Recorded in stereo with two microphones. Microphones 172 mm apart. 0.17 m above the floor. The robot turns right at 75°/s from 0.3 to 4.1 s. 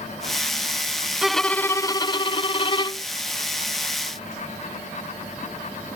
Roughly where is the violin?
Ahead.